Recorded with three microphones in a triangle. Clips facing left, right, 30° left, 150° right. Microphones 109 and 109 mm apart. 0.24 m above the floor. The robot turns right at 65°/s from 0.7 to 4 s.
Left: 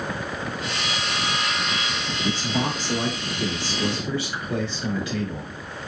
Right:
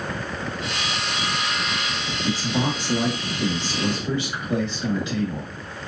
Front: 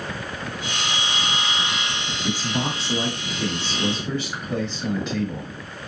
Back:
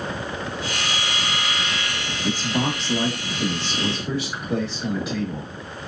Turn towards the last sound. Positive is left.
turn(degrees=-70)